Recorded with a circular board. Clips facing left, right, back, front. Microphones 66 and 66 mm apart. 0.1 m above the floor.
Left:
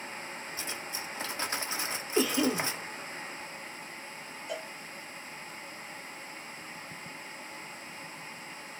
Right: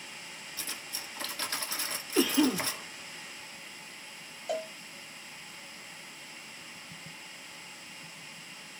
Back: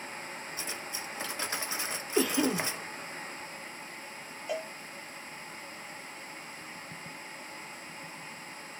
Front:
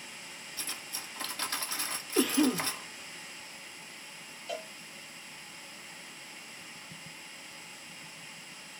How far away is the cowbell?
About 0.8 m.